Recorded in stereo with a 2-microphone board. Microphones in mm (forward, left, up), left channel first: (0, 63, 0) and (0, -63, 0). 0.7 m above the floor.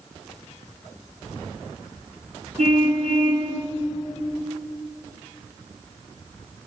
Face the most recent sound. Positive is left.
turn(degrees=-70)  # may be behind; listen again after turning